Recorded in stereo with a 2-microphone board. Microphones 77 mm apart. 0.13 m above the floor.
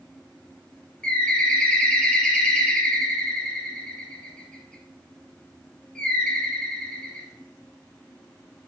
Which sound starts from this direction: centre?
A bird, at 1.0 s.